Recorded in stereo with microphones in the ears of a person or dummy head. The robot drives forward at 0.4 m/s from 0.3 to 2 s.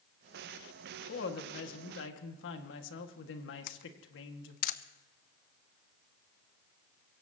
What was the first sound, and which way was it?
A woman speaking, 65° left (ahead or behind).